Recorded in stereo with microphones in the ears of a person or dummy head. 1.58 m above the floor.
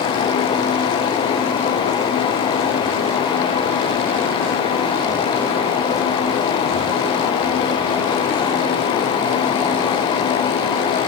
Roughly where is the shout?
I don't hear a shout.